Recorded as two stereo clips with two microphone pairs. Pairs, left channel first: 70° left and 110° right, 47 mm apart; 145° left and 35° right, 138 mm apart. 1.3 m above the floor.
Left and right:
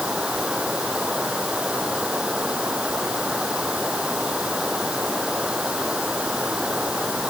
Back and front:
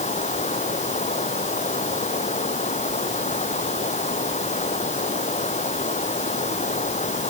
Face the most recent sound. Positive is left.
turn(degrees=180)